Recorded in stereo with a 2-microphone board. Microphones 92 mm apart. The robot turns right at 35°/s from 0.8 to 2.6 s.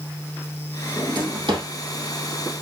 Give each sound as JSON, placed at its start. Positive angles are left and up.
{"t": 1.0, "sound": "a drawer", "side_deg": -40, "distance_m": 3.5}